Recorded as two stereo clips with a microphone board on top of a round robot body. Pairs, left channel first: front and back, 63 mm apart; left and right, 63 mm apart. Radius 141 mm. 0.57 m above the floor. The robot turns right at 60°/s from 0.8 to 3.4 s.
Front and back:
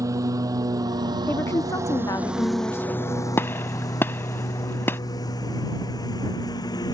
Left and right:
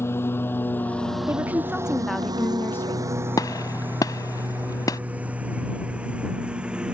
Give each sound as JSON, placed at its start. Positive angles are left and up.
{"t": 0.0, "sound": "a lawn mower", "azimuth_deg": 145}
{"t": 1.3, "sound": "a woman speaking", "azimuth_deg": -45}
{"t": 3.4, "sound": "a gunshot", "azimuth_deg": 60}